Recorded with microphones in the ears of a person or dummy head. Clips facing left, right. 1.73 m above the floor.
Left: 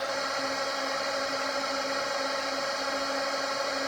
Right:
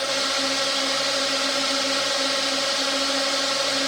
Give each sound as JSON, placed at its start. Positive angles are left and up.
{"t": 0.0, "sound": "a drone", "side_deg": -50}